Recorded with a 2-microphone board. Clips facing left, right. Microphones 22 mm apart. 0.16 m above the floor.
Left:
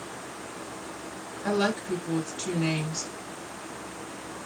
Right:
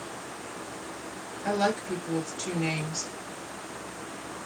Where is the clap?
I don't hear a clap.